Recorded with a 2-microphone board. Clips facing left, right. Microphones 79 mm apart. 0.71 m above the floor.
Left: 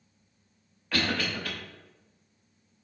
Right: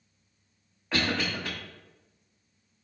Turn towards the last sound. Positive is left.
turn(degrees=-25)  # may be behind; listen again after turning